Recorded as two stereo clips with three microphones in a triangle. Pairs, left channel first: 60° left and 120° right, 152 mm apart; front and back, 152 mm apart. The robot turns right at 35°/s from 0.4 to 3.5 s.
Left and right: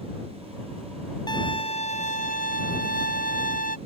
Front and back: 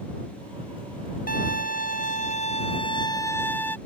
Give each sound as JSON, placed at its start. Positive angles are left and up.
{"t": 1.3, "sound": "a violin", "azimuth_deg": 0}